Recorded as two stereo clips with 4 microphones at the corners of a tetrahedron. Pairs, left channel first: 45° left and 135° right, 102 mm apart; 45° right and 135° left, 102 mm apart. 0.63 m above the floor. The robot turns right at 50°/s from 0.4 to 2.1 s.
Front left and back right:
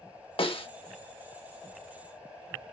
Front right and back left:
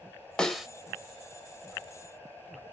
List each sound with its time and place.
0.4 s a snare drum: 35° left, 0.6 m; by 0.7 s 50° left, 0.6 m